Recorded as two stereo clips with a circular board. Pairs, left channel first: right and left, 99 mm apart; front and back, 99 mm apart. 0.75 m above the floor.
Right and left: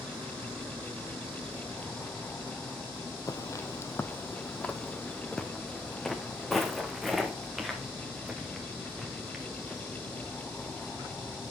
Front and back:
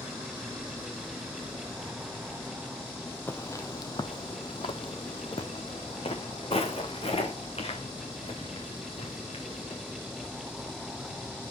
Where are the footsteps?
60° right, 0.9 m; by 9.8 s 5° left, 4.5 m.